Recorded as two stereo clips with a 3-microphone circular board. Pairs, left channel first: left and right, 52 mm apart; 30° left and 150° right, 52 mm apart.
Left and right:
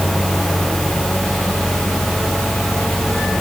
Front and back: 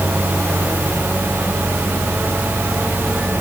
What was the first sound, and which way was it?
Only background noise.